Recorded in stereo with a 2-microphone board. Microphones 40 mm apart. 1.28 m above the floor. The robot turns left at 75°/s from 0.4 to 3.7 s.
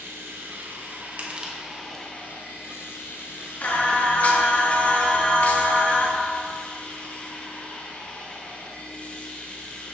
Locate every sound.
0.0 s running water: 80° right, 1.2 m; by 9.9 s 35° left, 1.2 m
1.2 s crushing: 40° right (ahead or behind), 1.0 m; by 2.0 s 20° left (ahead or behind), 1.0 m
3.6 s singing: 45° left (ahead or behind), 1.1 m; by 6.1 s 35° left (ahead or behind), 1.1 m